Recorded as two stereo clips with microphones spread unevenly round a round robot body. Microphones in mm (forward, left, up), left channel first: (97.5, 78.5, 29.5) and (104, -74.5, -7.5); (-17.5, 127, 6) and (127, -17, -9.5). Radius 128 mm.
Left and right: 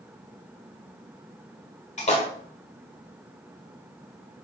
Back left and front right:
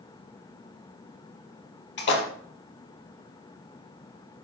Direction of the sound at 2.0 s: 150° left.